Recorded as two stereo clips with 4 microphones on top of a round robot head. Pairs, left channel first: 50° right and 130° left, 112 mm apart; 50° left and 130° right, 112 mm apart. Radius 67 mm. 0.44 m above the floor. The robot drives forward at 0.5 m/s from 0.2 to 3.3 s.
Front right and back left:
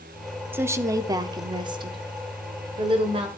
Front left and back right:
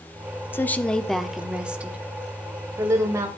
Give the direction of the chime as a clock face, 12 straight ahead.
I don't hear a chime.